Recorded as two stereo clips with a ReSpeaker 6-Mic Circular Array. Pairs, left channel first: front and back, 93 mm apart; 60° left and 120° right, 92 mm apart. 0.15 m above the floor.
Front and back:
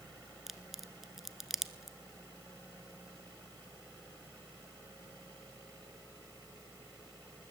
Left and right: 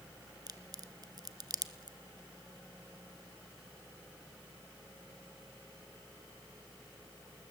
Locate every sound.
0.5 s a crack: 95° right, 1.2 m